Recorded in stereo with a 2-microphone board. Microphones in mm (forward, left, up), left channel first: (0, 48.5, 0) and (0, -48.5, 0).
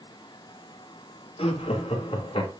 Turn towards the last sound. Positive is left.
turn(degrees=65)  # may be behind; listen again after turning